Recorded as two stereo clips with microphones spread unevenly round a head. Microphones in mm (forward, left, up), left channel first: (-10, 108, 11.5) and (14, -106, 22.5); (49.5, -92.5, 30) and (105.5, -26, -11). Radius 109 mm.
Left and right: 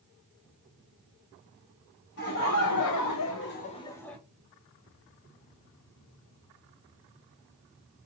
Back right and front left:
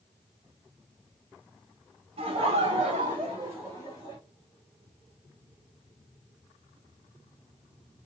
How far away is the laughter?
About 1.1 m.